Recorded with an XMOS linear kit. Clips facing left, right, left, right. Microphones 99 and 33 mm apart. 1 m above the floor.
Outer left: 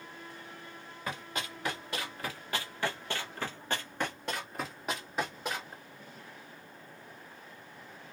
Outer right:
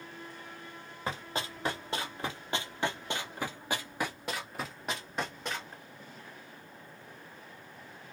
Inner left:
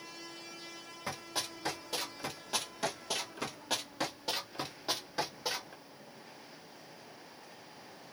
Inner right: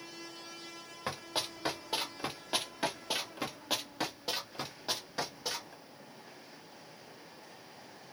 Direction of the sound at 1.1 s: 25° right (ahead or behind).